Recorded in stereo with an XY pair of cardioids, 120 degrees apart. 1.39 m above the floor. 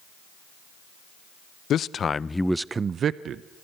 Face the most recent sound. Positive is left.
turn(degrees=-60)